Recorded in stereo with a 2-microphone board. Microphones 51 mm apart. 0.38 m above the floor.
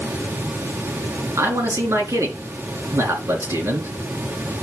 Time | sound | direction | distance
1.4 | a man speaking | 70° right (ahead or behind) | 3.5 m